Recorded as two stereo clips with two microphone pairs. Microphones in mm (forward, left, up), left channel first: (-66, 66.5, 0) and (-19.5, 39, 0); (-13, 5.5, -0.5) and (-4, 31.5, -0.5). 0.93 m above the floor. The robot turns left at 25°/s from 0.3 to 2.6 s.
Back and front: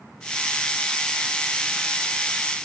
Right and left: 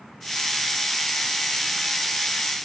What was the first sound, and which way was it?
Only background noise.